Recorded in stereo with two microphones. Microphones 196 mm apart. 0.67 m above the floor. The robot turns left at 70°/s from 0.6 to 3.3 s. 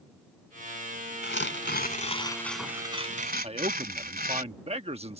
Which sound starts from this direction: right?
A man speaking, at 3.4 s.